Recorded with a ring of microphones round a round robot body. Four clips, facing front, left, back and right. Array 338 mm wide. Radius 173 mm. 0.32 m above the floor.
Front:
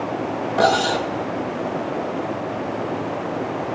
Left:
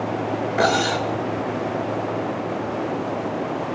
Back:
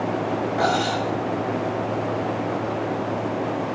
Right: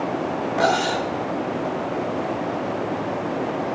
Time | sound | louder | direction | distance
0.6 | cutlery clinking | even, front 6 dB | 25° left | 0.7 m